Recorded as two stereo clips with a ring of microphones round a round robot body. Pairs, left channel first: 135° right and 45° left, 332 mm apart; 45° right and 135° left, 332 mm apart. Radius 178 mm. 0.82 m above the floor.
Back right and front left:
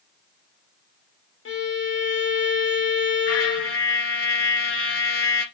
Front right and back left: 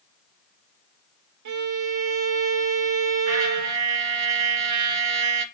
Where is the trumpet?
175° left, 1.7 m.